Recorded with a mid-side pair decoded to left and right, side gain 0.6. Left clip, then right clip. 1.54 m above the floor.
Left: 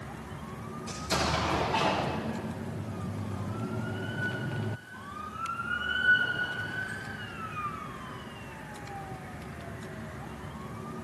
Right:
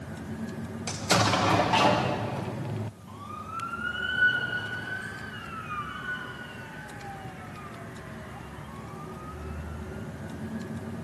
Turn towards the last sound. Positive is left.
turn(degrees=-60)